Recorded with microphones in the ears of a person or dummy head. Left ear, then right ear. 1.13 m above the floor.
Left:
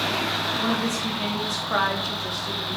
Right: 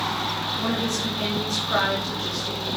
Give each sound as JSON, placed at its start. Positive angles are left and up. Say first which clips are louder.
{"t": 0.6, "sound": "a woman speaking", "louder": "left 1 dB", "side_deg": 20, "distance_m": 3.0}